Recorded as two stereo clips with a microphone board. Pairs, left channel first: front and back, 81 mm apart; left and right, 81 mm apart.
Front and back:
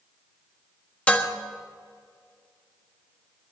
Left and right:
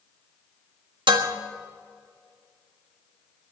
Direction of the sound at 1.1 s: 75° right.